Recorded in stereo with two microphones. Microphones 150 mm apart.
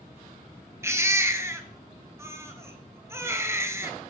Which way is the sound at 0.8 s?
20° right (ahead or behind).